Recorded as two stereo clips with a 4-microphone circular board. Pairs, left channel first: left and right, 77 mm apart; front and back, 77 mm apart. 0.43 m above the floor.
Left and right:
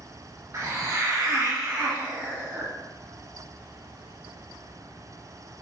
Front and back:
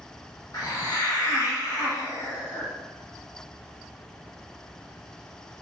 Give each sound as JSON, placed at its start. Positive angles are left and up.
{"t": 0.5, "sound": "a hiss", "azimuth_deg": -35, "distance_m": 0.6}